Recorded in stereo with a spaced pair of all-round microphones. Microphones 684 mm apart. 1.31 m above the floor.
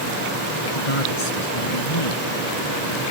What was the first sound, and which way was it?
A man speaking, 45° left (ahead or behind).